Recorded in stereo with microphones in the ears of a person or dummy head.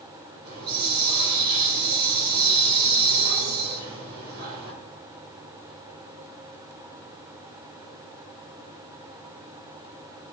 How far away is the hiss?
About 2.5 m.